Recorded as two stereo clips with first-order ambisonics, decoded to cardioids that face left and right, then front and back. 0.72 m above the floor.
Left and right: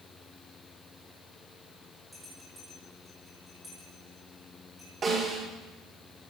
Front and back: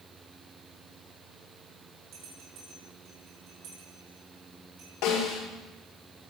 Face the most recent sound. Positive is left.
turn(degrees=-25)